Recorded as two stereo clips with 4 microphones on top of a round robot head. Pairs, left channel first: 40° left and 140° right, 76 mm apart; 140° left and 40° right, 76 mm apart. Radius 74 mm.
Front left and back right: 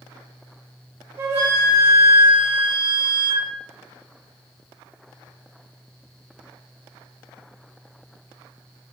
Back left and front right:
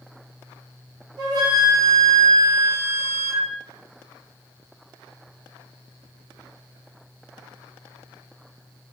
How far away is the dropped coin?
No dropped coin in this recording.